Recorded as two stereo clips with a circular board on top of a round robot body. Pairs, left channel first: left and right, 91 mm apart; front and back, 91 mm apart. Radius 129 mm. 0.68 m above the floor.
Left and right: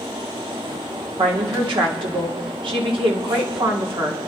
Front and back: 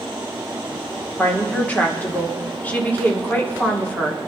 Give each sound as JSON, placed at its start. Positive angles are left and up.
{"t": 1.2, "sound": "a woman speaking", "azimuth_deg": -70, "distance_m": 2.5}